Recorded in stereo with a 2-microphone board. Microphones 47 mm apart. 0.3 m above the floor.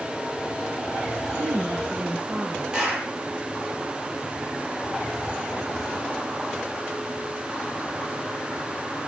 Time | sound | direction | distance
1.3 | a woman speaking | 60° right (ahead or behind) | 3 m
2.7 | a clap | 20° right (ahead or behind) | 7.5 m